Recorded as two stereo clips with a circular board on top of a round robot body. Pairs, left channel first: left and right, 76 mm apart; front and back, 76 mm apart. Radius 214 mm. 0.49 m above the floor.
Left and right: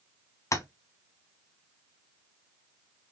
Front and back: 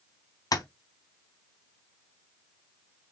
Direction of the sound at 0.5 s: 40° left.